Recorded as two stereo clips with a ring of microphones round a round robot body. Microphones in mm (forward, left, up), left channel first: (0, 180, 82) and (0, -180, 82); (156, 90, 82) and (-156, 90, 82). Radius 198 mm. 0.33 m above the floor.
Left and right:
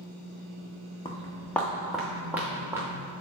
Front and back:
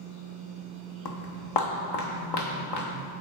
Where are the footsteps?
10° left, 0.9 m; by 3.0 s 5° right, 2.0 m.